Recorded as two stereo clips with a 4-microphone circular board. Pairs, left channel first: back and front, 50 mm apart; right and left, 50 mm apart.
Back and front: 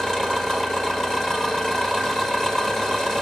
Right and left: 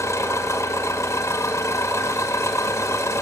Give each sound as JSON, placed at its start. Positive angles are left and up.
{"t": 0.0, "sound": "an engine running", "azimuth_deg": -100, "distance_m": 1.9}